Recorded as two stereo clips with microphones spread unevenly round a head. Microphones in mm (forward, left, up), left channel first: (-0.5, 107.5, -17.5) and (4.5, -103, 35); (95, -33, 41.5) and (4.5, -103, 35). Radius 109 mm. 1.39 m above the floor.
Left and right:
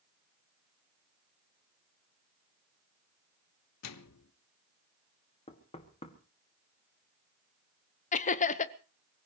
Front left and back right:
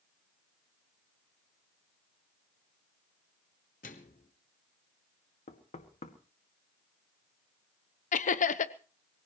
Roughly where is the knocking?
Ahead left.